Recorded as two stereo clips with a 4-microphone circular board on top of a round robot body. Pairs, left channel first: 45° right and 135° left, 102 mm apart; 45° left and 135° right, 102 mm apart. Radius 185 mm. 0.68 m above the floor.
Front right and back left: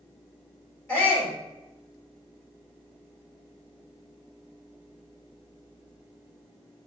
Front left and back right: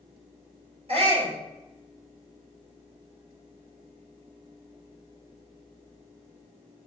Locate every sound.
0.9 s a shout: 110° right, 4.5 m